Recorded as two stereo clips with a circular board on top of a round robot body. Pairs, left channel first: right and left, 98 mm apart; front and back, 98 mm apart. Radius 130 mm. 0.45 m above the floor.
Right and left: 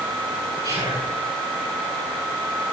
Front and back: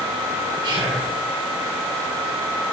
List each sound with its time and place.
0.6 s whispering: 130° left, 6 m